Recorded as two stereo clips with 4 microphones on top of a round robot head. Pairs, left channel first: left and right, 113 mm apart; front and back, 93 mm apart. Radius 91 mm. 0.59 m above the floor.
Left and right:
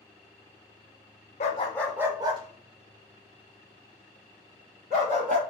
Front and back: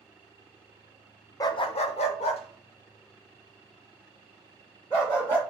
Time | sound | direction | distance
1.4 | a dog barking | 50° left | 0.6 m